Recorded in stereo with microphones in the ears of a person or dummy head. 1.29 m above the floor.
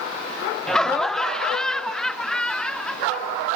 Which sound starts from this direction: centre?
Laughter, at 0.7 s.